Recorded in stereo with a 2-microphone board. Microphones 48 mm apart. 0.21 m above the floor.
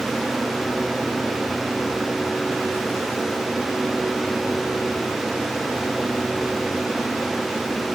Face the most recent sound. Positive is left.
No sound to turn to.